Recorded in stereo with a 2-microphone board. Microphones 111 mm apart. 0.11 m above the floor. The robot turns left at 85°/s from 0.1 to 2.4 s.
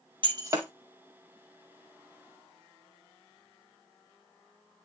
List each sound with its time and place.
0.2 s breaking glass: 50° right (ahead or behind), 1.8 m; by 0.7 s 15° right (ahead or behind), 1.8 m